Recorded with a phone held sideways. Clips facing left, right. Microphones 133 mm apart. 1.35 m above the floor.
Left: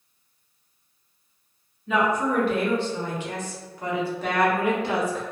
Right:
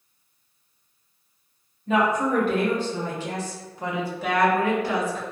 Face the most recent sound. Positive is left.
turn(degrees=40)  # may be behind; listen again after turning